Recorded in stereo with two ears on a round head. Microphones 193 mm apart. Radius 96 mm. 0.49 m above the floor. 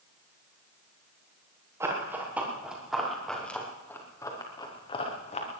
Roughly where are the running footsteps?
Centre.